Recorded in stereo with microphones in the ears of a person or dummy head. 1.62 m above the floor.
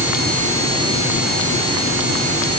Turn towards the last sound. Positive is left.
No sound to turn to.